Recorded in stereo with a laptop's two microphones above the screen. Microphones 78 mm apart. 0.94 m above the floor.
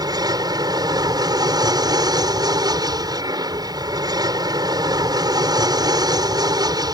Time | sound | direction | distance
0.0 | an aircraft | 65° right (ahead or behind) | ?